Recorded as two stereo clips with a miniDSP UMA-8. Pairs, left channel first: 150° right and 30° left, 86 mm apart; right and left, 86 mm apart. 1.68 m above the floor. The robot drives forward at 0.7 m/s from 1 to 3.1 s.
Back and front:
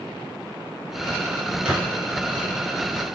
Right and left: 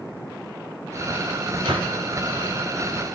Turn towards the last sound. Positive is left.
turn(degrees=125)